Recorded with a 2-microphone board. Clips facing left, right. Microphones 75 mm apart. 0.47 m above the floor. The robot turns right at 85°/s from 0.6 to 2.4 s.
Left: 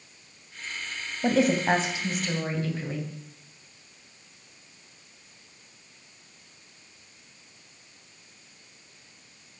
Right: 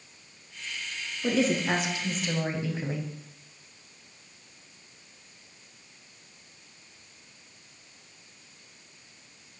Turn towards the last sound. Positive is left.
turn(degrees=-165)